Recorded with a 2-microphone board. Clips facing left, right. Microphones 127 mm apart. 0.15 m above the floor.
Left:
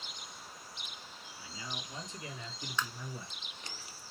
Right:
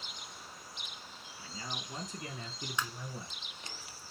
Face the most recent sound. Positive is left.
turn(degrees=-15)  # may be behind; listen again after turning